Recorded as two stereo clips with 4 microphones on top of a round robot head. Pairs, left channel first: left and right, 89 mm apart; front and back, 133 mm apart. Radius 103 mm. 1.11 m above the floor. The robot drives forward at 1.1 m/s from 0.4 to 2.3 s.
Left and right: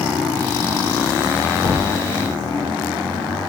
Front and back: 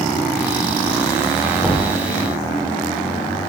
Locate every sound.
1.6 s knocking: 70° left, 1.7 m; by 1.9 s 80° left, 1.6 m